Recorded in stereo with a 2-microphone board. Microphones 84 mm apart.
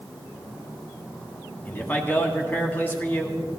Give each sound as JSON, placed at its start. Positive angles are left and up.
{"t": 1.6, "sound": "a man speaking", "side_deg": 25, "distance_m": 2.0}